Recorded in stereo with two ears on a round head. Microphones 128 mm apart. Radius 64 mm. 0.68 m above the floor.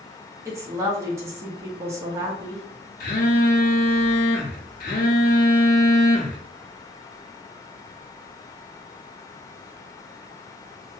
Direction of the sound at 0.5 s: 20° right (ahead or behind).